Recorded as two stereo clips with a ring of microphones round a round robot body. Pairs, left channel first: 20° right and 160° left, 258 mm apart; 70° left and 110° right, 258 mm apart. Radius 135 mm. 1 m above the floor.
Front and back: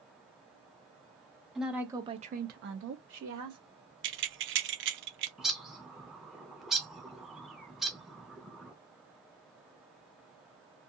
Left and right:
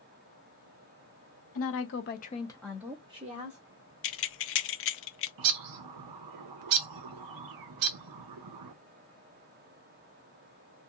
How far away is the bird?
About 0.5 m.